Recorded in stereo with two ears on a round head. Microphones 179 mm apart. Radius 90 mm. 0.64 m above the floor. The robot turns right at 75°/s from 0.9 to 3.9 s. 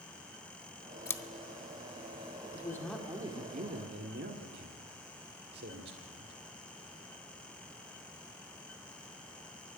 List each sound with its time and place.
1.1 s scissors: 15° left (ahead or behind), 0.5 m; by 1.2 s 5° left (ahead or behind), 0.5 m
2.5 s a man speaking: 150° left, 1.7 m; by 6.3 s 110° right, 1.7 m